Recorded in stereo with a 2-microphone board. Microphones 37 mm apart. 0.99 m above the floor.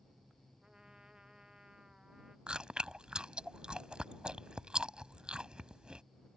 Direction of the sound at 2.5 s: 25° right (ahead or behind).